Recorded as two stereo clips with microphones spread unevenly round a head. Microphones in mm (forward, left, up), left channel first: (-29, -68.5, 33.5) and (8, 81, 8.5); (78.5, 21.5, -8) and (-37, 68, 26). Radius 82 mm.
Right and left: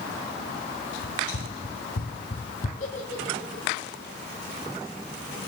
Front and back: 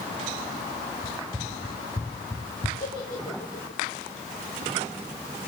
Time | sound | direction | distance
1.0 | running footsteps | 105° right | 4 m
2.8 | a giggle | 60° right | 9 m